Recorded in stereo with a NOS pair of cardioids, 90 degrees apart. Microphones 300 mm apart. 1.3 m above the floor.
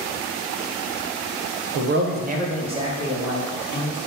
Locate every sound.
1.8 s a man speaking: 50° right, 0.5 m; by 4.0 s 10° right, 1.9 m